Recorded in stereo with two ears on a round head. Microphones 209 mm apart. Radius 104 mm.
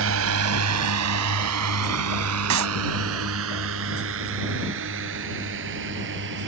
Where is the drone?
65° right (ahead or behind); by 6.5 s 50° right (ahead or behind).